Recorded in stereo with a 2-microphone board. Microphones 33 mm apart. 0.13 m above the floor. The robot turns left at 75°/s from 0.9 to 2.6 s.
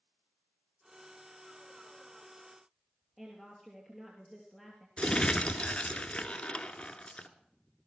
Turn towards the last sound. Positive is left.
turn(degrees=30)  # may be behind; listen again after turning